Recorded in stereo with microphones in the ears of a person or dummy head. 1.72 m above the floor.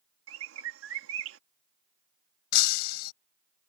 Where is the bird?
85° right.